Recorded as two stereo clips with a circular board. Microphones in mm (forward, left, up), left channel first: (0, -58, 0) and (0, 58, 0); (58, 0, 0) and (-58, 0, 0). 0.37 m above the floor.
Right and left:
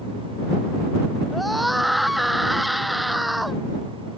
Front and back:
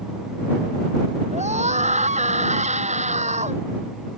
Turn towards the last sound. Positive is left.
turn(degrees=180)